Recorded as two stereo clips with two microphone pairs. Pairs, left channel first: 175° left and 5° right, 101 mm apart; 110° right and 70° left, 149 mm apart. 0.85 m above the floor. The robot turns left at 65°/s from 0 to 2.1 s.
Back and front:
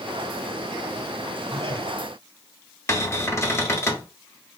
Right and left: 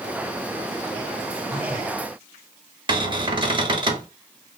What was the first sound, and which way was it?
A phone buzzing, 95° right.